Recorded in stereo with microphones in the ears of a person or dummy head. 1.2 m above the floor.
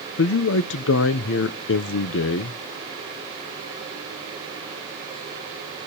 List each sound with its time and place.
0.2 s a man speaking: 55° left (ahead or behind), 0.7 m